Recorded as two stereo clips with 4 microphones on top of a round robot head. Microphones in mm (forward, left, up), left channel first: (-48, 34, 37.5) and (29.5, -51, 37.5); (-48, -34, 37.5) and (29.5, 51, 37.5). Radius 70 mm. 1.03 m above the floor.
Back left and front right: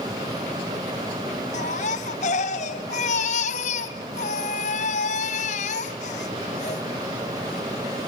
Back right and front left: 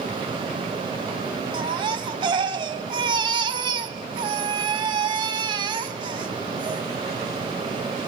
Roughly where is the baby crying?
Left.